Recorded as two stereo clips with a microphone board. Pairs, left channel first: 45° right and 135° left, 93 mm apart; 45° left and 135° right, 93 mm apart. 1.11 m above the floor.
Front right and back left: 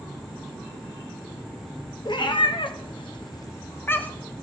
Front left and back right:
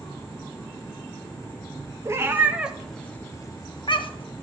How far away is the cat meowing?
About 0.8 m.